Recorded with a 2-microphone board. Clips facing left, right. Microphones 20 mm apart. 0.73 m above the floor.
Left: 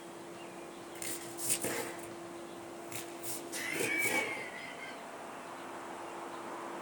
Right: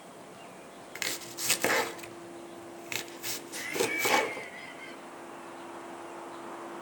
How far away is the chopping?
About 1.4 m.